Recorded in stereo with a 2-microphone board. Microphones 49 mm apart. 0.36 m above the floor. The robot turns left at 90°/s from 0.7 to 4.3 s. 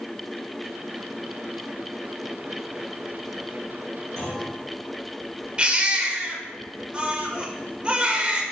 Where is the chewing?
No chewing in this recording.